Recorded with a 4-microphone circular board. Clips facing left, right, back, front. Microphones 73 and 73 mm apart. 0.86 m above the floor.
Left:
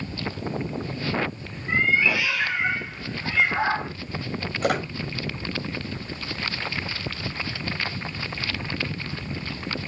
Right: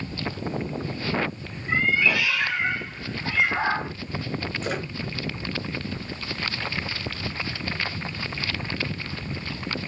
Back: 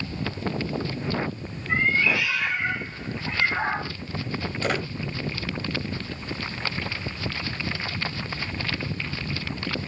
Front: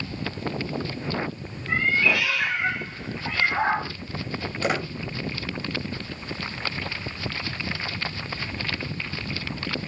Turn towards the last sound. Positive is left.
turn(degrees=70)